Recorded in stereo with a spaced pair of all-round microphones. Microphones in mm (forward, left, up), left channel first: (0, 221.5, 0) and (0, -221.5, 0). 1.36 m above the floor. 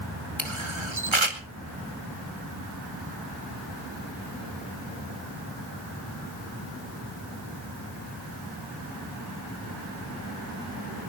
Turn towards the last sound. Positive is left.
turn(degrees=-80)